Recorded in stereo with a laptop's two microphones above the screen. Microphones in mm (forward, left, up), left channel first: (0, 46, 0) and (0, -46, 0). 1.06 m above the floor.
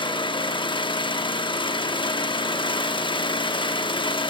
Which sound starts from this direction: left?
An engine running, at 0.0 s.